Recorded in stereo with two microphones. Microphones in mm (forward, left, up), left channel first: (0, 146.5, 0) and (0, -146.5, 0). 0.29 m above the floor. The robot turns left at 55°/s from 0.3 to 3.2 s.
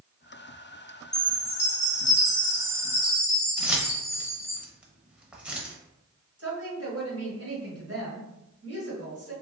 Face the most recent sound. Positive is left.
turn(degrees=-50)  # may be behind; listen again after turning